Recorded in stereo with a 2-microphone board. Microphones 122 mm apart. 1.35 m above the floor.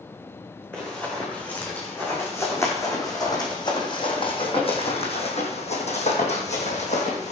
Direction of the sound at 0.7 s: 10° left (ahead or behind).